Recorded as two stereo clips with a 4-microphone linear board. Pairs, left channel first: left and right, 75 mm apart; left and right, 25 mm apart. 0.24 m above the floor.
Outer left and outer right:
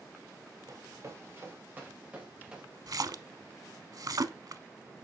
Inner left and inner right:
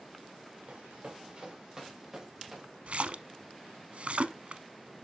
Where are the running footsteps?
45° right (ahead or behind), 3 m; by 2.7 s 10° right (ahead or behind), 5 m.